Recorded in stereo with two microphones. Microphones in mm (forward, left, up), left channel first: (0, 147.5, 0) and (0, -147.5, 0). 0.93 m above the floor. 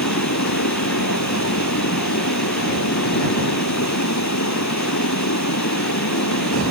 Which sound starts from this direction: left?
Running water, at 0.0 s.